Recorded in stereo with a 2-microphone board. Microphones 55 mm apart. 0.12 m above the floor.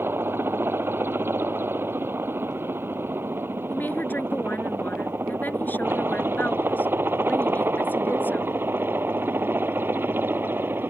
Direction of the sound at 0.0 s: 45° right (ahead or behind).